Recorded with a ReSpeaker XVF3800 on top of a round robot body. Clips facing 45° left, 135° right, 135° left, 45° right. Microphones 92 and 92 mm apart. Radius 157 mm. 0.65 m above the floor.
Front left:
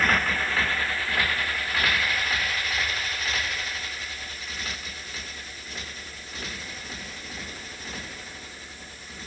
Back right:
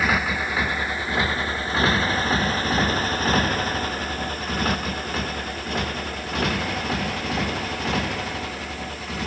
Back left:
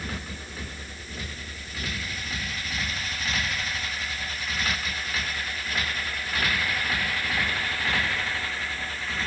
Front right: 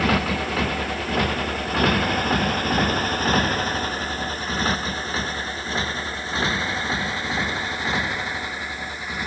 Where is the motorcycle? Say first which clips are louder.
Back right 1 dB, front right 15 dB; 50° right; by 9.3 s 120° right.